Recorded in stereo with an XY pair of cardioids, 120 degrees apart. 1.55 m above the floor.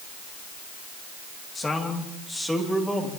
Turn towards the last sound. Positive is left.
turn(degrees=0)